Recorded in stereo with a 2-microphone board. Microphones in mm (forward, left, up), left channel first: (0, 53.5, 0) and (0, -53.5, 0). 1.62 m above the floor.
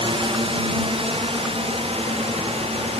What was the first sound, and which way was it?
A drone, 60° right (ahead or behind).